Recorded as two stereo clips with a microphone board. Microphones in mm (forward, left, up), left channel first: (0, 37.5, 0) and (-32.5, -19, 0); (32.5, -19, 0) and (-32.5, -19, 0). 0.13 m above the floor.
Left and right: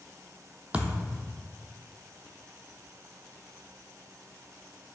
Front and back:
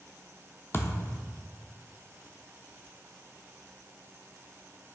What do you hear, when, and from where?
0.7 s a thud: 50° right, 0.5 m